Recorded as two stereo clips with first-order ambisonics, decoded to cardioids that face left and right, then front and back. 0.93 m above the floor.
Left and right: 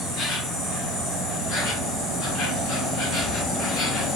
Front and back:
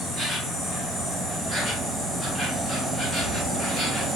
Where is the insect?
100° left, 1.8 m.